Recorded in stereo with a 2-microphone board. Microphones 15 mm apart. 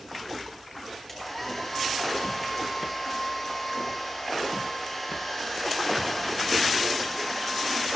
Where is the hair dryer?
10° left (ahead or behind), 3 m.